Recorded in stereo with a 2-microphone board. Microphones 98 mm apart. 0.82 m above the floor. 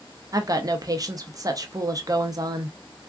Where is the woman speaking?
40° right (ahead or behind), 0.6 m.